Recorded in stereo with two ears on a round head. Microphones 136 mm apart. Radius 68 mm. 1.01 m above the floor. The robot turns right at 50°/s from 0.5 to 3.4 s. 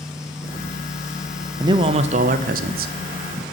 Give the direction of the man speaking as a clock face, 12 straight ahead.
5 o'clock.